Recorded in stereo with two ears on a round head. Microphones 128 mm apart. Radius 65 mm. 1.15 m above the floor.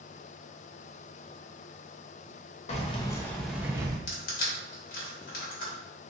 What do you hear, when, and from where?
2.7 s keys jangling: 50° left (ahead or behind), 0.7 m; by 4.0 s 25° right (ahead or behind), 0.8 m
4.1 s crushing: 65° left (ahead or behind), 1.2 m